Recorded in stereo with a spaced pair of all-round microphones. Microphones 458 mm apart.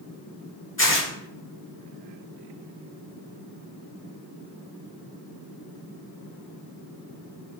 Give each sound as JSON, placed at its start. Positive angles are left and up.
{"t": 0.8, "sound": "tearing paper", "side_deg": 25, "distance_m": 0.8}